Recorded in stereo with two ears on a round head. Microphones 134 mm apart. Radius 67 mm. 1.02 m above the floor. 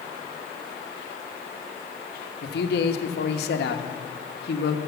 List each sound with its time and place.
2.4 s a man speaking: 80° left, 1.0 m